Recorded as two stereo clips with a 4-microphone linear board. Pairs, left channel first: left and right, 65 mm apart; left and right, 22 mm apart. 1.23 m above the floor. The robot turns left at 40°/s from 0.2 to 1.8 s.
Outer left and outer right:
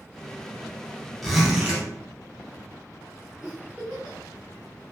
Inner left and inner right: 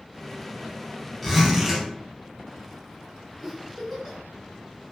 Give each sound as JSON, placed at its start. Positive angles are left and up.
{"t": 1.2, "sound": "a zipper", "side_deg": 0, "distance_m": 0.8}
{"t": 3.4, "sound": "a giggle", "side_deg": -15, "distance_m": 1.0}